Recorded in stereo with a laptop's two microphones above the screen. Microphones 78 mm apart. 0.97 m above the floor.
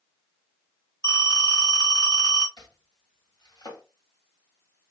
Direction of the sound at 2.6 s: 70° left (ahead or behind).